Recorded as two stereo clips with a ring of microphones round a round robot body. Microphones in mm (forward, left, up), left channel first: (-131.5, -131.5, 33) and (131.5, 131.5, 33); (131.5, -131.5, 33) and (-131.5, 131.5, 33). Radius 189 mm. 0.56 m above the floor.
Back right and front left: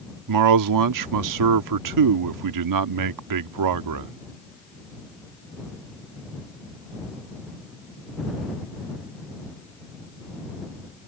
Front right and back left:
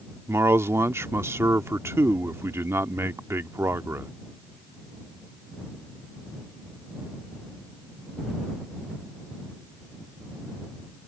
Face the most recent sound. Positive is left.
turn(degrees=55)